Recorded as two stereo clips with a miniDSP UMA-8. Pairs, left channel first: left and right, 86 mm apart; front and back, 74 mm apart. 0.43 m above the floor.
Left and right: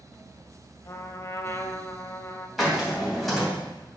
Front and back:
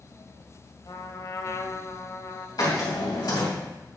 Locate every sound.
0.8 s a trumpet: 35° left, 0.7 m
2.6 s a hiss: straight ahead, 3 m